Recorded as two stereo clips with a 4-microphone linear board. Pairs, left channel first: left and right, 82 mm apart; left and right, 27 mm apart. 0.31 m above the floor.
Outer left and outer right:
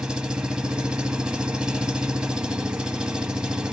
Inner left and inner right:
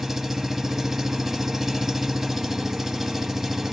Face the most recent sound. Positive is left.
turn(degrees=-10)  # may be behind; listen again after turning